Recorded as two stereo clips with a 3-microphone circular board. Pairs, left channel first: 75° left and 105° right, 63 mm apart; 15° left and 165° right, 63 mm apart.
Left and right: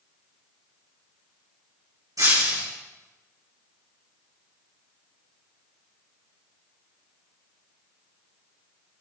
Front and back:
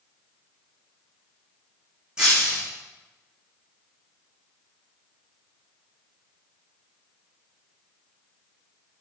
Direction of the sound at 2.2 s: 85° right.